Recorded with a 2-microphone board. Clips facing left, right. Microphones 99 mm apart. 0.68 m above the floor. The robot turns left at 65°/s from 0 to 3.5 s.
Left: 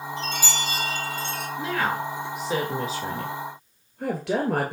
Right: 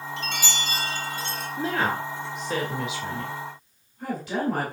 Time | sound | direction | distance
0.2 | a chime | 100° right | 3 m
1.6 | a woman speaking | 45° right (ahead or behind) | 2.5 m